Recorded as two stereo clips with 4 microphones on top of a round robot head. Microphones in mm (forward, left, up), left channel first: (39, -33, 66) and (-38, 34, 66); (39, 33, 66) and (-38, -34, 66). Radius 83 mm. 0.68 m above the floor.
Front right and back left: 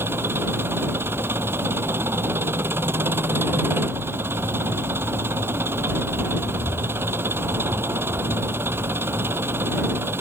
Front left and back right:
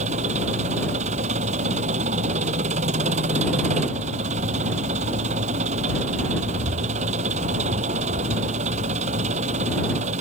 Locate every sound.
0.0 s an engine running: 150° right